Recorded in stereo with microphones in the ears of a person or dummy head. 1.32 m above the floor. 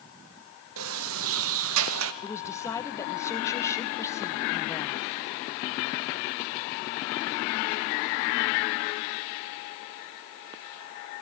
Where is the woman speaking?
20° left (ahead or behind), 1.2 m.